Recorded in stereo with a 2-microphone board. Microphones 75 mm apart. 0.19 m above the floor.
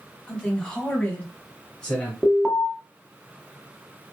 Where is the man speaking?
10° left (ahead or behind), 1.3 m; by 2.1 s 20° left (ahead or behind), 1.4 m.